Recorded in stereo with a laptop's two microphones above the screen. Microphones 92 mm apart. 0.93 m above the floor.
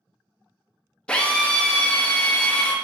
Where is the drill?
10° left (ahead or behind), 0.5 m.